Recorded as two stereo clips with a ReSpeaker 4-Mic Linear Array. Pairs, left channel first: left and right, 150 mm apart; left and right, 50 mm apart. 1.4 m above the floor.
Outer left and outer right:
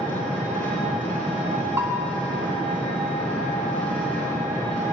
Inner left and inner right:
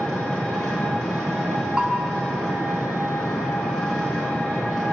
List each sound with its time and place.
0.0 s an engine running: 10° left (ahead or behind), 5.5 m
1.8 s a bell: 15° right (ahead or behind), 1.4 m